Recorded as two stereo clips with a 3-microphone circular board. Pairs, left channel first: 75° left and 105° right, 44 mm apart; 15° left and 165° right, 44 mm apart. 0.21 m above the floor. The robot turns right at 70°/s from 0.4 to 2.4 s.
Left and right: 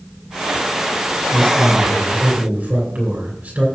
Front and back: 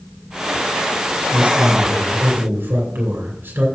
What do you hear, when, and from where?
1.3 s a man speaking: 130° left, 3 m; by 3.7 s 150° right, 3 m